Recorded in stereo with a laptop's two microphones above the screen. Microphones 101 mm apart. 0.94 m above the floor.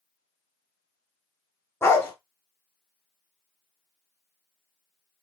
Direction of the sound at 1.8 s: 25° left (ahead or behind).